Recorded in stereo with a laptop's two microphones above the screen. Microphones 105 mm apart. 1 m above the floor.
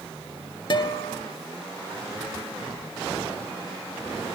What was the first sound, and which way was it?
A guitar, 50° left (ahead or behind).